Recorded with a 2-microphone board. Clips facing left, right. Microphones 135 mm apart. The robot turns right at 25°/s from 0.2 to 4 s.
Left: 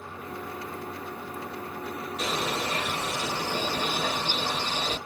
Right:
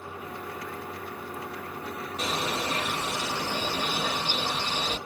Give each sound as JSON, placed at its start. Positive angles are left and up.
{"t": 2.2, "sound": "a bird", "azimuth_deg": -55, "distance_m": 1.5}